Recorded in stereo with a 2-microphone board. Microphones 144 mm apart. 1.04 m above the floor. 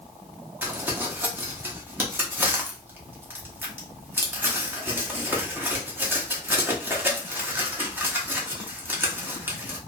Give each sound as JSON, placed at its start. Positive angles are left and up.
{"t": 0.6, "sound": "crumpling", "side_deg": -15, "distance_m": 0.8}